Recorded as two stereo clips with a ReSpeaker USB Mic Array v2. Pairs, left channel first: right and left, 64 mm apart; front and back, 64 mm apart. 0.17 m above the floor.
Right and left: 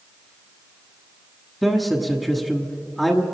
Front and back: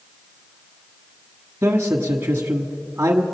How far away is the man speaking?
About 1.3 m.